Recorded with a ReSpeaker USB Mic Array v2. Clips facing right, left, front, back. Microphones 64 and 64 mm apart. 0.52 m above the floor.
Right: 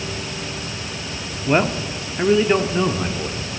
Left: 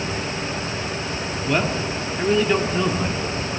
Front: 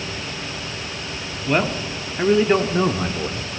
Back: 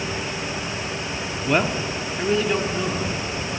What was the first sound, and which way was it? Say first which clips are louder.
A man speaking: right 4 dB, front 1 dB; 100° right.